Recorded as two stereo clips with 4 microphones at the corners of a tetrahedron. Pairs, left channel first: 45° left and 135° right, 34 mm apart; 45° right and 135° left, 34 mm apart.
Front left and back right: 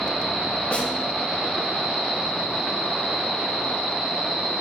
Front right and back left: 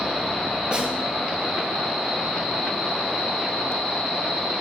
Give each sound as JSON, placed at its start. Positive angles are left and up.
{"t": 0.7, "sound": "a snare drum", "azimuth_deg": 85, "distance_m": 0.7}